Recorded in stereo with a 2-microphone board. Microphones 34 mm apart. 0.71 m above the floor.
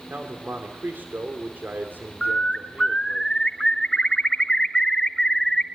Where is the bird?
15° left (ahead or behind), 0.9 m.